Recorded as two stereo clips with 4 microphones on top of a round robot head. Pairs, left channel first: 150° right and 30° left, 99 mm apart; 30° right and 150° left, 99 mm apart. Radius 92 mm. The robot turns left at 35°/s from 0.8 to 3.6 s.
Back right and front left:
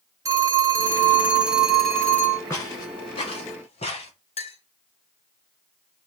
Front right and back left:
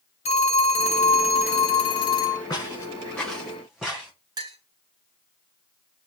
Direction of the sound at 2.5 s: 90° right.